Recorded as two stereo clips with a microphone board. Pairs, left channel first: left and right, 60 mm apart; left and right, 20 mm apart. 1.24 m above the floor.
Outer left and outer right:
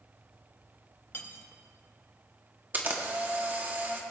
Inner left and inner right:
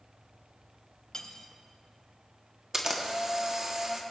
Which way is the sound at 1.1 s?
40° left (ahead or behind).